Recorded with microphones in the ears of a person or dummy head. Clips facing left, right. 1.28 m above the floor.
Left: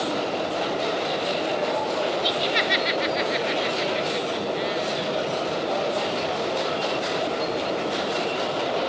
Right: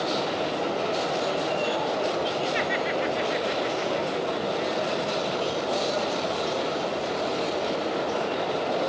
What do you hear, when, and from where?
2.2 s laughter: 55° left (ahead or behind), 1.4 m